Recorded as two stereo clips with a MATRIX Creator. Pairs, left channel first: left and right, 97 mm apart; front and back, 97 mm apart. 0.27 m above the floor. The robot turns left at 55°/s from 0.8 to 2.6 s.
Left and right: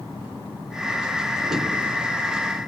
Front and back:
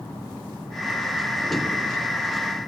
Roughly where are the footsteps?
Right.